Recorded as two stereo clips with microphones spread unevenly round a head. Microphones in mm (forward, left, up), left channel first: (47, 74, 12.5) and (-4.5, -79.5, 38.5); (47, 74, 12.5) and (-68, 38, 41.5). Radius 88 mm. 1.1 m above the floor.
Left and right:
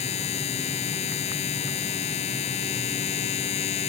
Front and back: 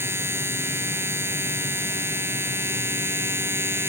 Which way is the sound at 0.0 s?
130° left.